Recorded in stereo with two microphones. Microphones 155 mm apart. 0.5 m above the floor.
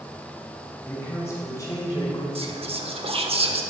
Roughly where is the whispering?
Right.